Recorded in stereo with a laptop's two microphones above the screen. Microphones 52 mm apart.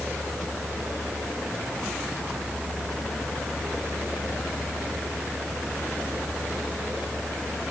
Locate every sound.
0.0 s a fan: 10° left (ahead or behind), 3 m